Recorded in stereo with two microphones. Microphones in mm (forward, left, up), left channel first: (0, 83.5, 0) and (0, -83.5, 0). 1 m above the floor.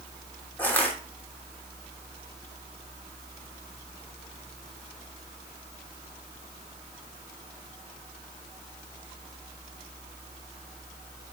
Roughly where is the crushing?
Centre.